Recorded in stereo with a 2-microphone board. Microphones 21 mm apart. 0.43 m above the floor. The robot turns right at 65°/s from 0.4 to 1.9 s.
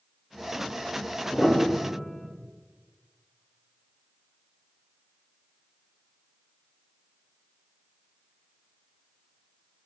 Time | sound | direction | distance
1.3 | a piano | 25° left | 0.6 m